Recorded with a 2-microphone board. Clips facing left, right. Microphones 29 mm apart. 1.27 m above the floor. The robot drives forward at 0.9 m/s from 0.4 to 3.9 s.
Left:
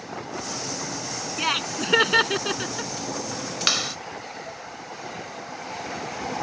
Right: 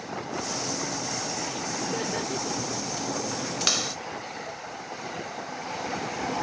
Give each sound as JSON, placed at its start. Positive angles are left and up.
{"t": 1.4, "sound": "laughter", "side_deg": 85}
{"t": 3.7, "sound": "a clap", "side_deg": 20}